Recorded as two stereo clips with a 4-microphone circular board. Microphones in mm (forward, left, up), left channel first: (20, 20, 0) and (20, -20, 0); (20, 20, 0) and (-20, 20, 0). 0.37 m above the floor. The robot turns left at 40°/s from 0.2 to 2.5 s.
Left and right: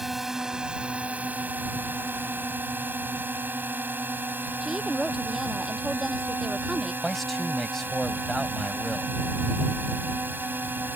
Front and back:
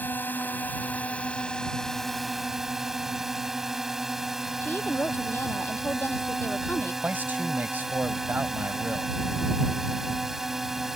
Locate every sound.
0.0 s a drone: 10° right; by 11.0 s 100° right
4.6 s a woman speaking: 15° right
7.0 s a man speaking: 175° left